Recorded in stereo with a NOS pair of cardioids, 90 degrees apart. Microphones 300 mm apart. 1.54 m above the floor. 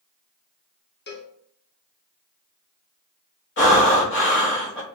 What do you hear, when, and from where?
1.1 s a cowbell: 35° left, 1.2 m
3.6 s breathing: 40° left, 1.9 m